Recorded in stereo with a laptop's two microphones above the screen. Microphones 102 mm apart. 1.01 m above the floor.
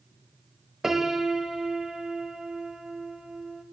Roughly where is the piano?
Centre.